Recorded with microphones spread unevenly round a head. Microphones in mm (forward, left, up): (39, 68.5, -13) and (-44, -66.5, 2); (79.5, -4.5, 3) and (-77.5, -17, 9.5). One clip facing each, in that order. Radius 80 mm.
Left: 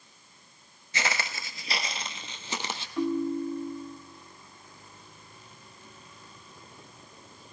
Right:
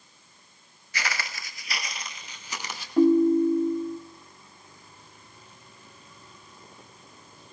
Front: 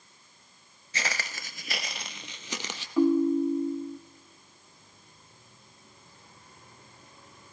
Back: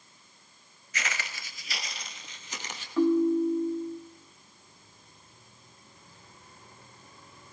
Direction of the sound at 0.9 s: 10° left.